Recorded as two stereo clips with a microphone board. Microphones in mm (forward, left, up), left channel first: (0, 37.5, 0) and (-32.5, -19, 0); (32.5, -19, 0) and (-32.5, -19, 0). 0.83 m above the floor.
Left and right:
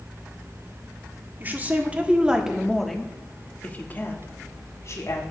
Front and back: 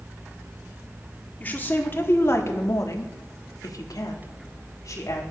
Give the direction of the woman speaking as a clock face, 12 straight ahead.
2 o'clock.